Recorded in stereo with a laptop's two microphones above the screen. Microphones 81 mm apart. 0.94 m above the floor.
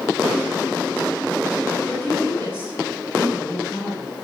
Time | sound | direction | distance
1.9 | a woman speaking | 20° left (ahead or behind) | 6.5 m